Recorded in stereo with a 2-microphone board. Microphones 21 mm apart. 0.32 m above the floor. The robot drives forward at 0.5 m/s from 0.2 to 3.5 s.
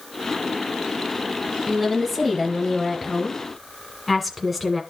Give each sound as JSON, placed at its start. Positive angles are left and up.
{"t": 1.7, "sound": "a woman speaking", "side_deg": 5, "distance_m": 1.8}